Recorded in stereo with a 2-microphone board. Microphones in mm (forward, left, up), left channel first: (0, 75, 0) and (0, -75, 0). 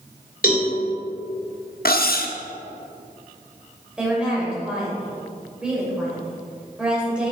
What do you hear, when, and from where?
0.4 s a cowbell: 75° left (ahead or behind), 2.5 m
1.9 s cutlery clinking: 85° left, 0.6 m
4.0 s a woman speaking: 5° right (ahead or behind), 3 m